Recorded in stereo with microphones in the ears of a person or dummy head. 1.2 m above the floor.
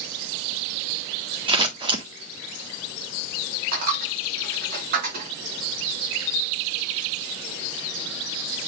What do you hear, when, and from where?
1.5 s scissors: 15° right (ahead or behind), 1.7 m
3.7 s a dropped coin: 40° right (ahead or behind), 3.5 m